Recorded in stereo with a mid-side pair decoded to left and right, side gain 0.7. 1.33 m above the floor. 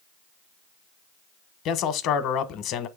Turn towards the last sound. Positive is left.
turn(degrees=55)